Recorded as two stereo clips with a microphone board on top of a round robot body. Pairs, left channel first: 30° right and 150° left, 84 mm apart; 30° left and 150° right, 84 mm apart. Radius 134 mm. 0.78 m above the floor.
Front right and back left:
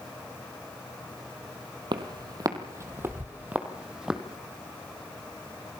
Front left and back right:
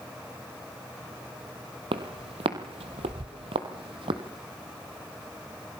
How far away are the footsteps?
About 1.6 m.